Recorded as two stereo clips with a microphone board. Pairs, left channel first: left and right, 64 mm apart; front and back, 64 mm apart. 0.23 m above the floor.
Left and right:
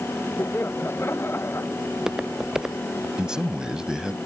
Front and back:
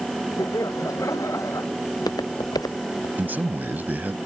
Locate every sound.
0.4 s laughter: 35° left; by 1.7 s 40° left
1.9 s footsteps: 10° right
3.2 s a man speaking: 160° right